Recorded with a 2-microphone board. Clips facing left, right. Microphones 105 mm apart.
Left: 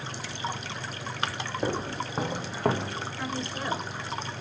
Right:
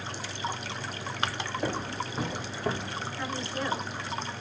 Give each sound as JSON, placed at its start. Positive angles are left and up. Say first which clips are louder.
{"t": 1.6, "sound": "footsteps", "louder": "left 3 dB", "side_deg": 25, "distance_m": 1.9}
{"t": 3.2, "sound": "a woman speaking", "louder": "right 1 dB", "side_deg": 20, "distance_m": 1.5}